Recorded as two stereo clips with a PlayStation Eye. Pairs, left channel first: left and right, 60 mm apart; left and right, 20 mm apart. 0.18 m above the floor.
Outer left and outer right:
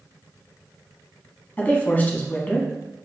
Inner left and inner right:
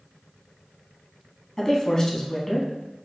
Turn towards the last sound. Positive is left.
turn(degrees=25)  # may be behind; listen again after turning